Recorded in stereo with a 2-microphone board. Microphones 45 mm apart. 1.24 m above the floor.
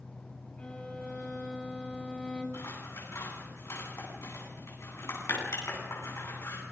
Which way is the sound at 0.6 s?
25° left (ahead or behind).